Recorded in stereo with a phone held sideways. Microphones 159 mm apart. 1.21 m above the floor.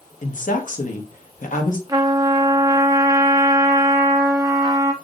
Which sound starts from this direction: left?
A woman speaking, at 0.2 s.